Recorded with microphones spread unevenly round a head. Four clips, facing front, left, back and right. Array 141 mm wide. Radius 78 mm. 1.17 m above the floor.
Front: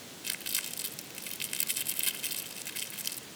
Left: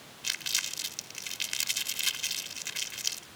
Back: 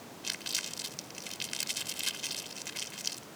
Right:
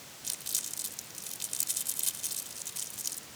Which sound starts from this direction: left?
Crumpling, at 0.2 s.